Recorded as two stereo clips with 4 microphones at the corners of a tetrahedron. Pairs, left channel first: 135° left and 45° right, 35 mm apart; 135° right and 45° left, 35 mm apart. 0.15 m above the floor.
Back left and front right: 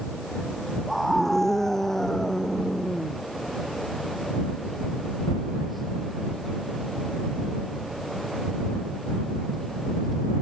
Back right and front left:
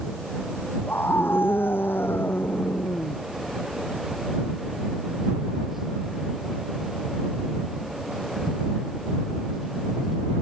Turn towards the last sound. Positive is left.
turn(degrees=-150)